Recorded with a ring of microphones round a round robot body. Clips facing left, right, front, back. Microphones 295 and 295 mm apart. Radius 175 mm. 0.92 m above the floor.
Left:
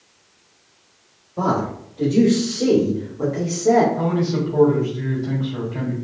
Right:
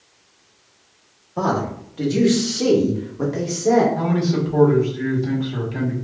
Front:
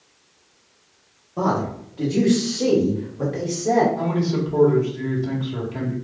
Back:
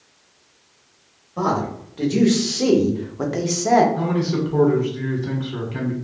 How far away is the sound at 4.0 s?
About 1.7 m.